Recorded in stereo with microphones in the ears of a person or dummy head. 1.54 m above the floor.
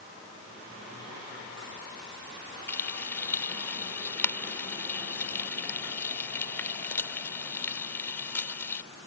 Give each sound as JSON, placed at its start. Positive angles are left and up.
{"t": 2.7, "sound": "frying", "side_deg": 10}